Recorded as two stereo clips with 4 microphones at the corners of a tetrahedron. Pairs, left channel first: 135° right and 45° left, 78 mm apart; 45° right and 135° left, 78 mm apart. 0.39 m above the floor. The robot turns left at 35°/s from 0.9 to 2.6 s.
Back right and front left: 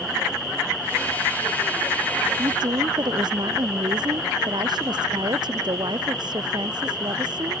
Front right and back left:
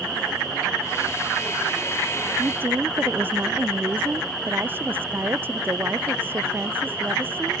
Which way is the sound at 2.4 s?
75° left.